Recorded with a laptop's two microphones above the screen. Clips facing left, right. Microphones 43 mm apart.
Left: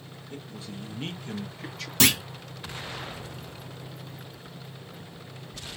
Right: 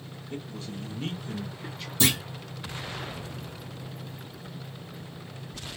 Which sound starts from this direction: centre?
A man speaking, at 0.3 s.